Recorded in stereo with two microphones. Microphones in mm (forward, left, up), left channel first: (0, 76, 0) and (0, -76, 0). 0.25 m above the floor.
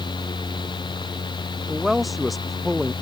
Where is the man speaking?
Centre (ahead or behind).